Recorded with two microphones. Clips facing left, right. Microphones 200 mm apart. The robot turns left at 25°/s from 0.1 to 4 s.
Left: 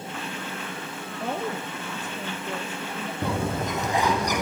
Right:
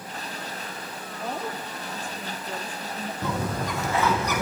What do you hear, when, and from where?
1.2 s a woman speaking: 60° left, 3 m; by 3.1 s 15° left, 3 m
3.2 s a bird: 35° left (ahead or behind), 4 m; by 4.4 s 15° left (ahead or behind), 4 m